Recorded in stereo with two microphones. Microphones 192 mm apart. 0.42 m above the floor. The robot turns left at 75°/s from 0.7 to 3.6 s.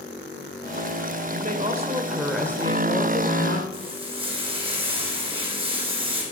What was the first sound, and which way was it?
A woman speaking, 105° right.